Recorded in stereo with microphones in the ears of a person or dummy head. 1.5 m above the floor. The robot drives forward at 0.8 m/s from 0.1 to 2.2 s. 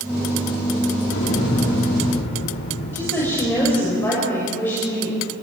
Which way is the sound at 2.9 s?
15° left (ahead or behind).